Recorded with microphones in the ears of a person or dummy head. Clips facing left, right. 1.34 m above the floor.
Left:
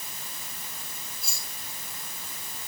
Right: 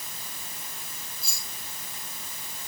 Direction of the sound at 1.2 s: 30° right (ahead or behind).